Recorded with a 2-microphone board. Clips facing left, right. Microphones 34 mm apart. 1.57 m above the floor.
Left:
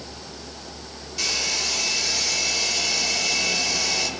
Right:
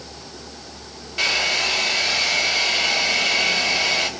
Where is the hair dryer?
40° right (ahead or behind), 2.5 m.